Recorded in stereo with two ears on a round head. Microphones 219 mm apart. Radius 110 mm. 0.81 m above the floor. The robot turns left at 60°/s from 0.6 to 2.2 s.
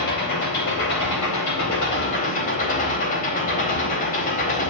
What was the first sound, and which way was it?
An engine running, 130° left.